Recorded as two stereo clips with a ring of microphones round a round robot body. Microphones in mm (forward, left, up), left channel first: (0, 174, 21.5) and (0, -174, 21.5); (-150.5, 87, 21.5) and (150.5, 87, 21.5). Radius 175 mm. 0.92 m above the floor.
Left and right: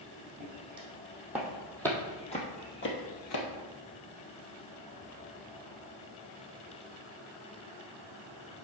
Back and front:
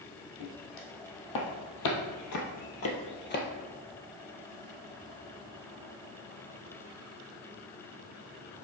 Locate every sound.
0.4 s footsteps: 160° right, 2.5 m; by 3.5 s 125° left, 1.8 m